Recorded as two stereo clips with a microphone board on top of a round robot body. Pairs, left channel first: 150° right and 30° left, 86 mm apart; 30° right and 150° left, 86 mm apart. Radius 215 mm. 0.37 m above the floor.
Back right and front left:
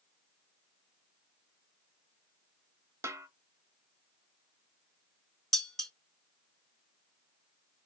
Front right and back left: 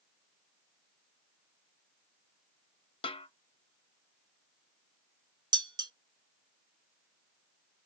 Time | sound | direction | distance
3.0 | a snare drum | 30° right | 0.5 m
5.5 | dishes clattering | 125° left | 1.1 m